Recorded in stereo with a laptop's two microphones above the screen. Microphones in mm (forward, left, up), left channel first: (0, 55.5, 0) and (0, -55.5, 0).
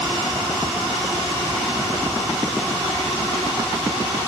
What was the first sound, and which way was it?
Only background noise.